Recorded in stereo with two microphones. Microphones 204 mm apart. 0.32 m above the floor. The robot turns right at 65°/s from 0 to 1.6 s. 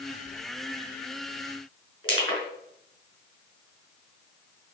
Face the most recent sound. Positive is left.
turn(degrees=25)  # may be behind; listen again after turning